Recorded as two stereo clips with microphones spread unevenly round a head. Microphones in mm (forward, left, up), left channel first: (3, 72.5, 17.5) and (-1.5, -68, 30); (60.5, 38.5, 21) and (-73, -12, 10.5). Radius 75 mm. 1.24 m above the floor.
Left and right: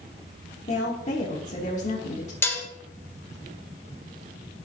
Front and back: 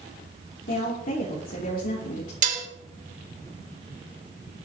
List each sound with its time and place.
0.7 s a woman speaking: 50° left, 3 m
2.4 s dishes clattering: 165° left, 3 m